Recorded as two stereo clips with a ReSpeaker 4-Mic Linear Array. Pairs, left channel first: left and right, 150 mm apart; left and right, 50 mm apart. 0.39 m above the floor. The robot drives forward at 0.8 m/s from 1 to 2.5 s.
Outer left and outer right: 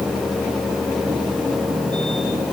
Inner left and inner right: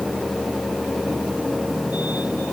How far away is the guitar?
I don't hear a guitar.